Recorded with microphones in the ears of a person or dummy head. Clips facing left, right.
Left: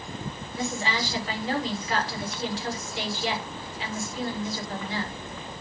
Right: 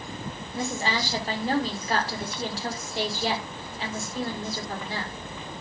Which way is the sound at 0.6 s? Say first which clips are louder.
Right 1 dB; 45° right (ahead or behind).